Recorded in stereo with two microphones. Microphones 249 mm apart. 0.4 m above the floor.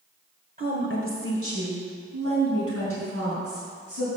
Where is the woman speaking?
35° right (ahead or behind), 1.4 m; by 4.1 s 65° right (ahead or behind), 5.5 m.